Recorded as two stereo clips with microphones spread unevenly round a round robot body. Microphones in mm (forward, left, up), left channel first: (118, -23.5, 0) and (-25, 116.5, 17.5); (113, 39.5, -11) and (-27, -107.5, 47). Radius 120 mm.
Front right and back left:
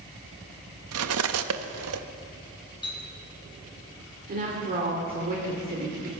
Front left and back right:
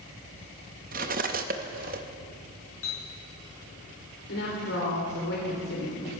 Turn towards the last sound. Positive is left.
turn(degrees=90)